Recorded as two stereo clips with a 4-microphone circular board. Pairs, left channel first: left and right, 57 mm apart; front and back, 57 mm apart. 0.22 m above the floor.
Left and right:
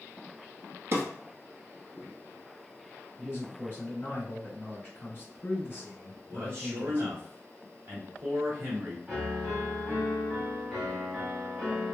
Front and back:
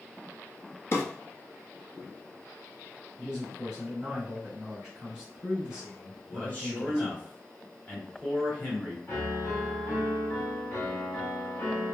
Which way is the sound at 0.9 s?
40° right.